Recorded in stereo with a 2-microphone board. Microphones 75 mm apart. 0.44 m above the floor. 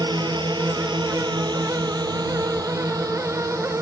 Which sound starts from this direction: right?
A drone, at 0.0 s.